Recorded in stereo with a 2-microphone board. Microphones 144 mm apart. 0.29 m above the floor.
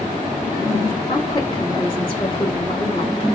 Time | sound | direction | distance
1.1 | a woman speaking | 35° left (ahead or behind) | 3 m